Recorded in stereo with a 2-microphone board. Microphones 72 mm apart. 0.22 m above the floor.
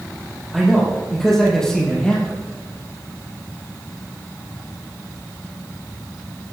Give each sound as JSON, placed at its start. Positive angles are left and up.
{"t": 0.5, "sound": "a man speaking", "side_deg": 0, "distance_m": 6.0}